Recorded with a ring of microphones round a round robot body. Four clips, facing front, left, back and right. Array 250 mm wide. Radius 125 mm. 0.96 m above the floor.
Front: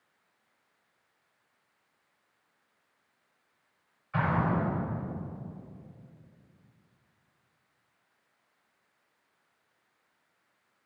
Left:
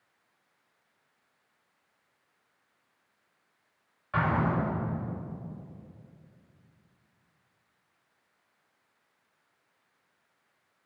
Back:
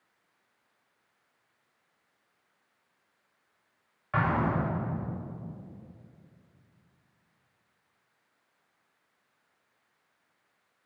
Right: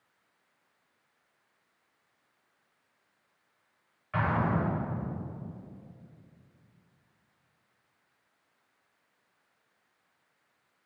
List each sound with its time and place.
4.1 s an explosion: 165° left, 2.5 m